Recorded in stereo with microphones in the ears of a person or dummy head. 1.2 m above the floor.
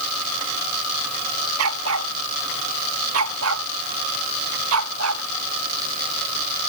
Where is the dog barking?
85° right.